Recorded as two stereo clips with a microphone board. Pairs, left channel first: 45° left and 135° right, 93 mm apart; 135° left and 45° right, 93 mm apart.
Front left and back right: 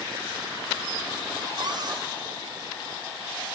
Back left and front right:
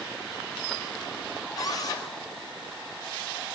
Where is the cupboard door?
175° right, 5 m.